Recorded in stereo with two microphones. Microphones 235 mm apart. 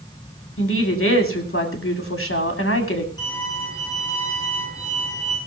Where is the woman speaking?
60° left (ahead or behind), 2.5 m.